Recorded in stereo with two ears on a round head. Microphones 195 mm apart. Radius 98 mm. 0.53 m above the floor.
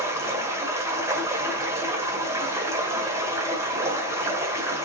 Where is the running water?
15° right (ahead or behind), 1.7 m.